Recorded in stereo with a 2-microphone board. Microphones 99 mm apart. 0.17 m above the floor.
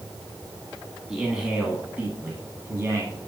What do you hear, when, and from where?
1.1 s a man speaking: 5° right (ahead or behind), 1.5 m; by 3.1 s 30° right (ahead or behind), 1.6 m